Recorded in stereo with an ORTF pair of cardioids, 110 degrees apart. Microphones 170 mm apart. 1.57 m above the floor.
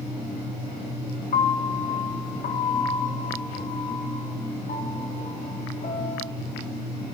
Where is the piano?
45° left, 1.8 m.